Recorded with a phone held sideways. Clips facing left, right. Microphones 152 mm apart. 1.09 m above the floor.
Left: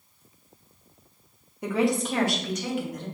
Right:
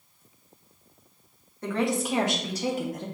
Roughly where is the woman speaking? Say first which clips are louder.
Left 2 dB; centre.